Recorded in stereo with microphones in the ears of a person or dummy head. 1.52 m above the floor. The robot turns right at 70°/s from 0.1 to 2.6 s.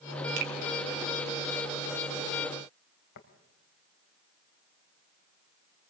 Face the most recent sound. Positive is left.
turn(degrees=60)  # may be behind; listen again after turning